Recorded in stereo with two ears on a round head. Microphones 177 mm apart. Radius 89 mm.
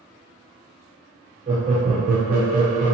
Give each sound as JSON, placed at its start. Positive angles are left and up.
{"t": 1.5, "sound": "laughter", "side_deg": -25, "distance_m": 0.7}